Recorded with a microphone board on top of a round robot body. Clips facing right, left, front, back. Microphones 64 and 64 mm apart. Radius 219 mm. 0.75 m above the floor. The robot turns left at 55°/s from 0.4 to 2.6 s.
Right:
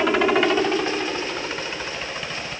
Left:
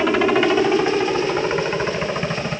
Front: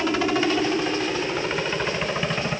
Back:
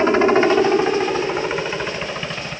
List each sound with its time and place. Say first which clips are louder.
0.0 s a helicopter: left 2 dB, back 8 dB; straight behind; by 2.6 s 60° left